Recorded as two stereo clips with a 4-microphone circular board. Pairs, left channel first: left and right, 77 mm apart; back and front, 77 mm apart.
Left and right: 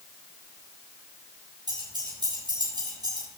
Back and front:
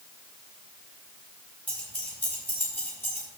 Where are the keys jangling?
110° right, 5 m; by 3.3 s 120° right, 5 m.